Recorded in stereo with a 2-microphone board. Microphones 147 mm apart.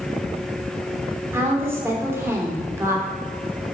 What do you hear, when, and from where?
1.3 s a woman speaking: 20° right (ahead or behind), 2.5 m